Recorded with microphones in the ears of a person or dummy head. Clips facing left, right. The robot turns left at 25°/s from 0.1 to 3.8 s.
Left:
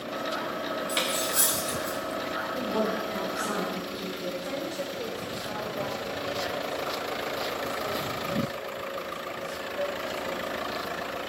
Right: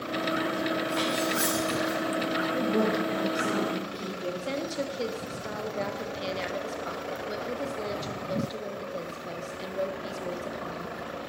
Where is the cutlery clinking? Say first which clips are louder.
Right 3 dB; 30° left (ahead or behind), 0.9 m.